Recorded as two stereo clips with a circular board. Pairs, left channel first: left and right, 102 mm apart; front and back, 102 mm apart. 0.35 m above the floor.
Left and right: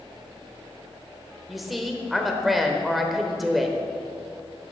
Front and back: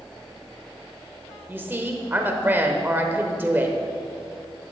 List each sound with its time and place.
1.5 s a woman speaking: 175° right, 1.0 m